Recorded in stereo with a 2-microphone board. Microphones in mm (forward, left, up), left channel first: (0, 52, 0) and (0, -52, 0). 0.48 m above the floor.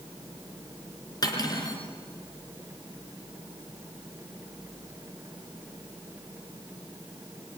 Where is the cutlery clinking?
40° left (ahead or behind), 3.5 m.